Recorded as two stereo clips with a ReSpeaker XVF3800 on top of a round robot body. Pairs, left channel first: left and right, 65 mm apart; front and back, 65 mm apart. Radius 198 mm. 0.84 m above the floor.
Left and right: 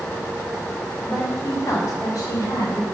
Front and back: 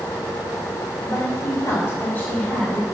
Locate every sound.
1.0 s a woman speaking: 30° left, 2.5 m; by 2.8 s 80° left, 3 m